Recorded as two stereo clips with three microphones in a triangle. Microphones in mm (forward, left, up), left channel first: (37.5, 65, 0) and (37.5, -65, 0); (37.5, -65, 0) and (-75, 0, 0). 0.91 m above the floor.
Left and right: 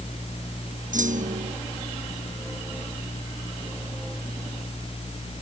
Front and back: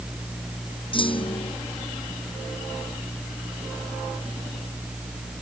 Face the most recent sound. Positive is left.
turn(degrees=-80)